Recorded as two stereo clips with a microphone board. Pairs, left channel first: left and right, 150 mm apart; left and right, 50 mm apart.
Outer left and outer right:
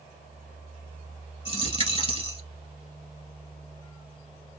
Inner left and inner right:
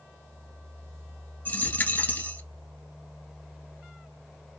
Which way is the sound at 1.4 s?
45° left (ahead or behind).